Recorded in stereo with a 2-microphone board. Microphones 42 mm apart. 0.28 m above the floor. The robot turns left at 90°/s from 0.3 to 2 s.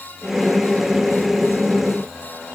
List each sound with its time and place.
Only background noise.